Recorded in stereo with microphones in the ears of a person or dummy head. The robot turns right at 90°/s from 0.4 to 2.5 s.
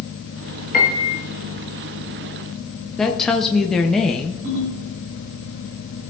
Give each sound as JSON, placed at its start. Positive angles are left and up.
{"t": 0.7, "sound": "a piano", "azimuth_deg": 130, "distance_m": 1.9}
{"t": 3.0, "sound": "a woman speaking", "side_deg": 10, "distance_m": 0.8}
{"t": 4.4, "sound": "a ringtone", "side_deg": -65, "distance_m": 4.5}